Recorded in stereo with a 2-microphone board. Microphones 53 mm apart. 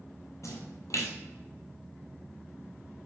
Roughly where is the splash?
Left.